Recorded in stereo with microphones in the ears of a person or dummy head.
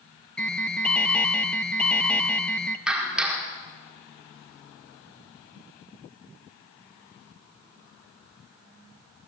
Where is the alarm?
10° left (ahead or behind), 1.3 m.